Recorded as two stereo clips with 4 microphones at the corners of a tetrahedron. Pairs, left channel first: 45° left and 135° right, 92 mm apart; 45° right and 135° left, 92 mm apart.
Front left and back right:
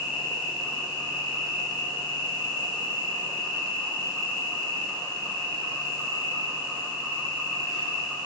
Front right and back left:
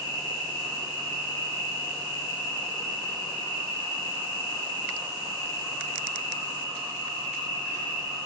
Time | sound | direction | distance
0.0 | an insect | 40° right | 1.8 m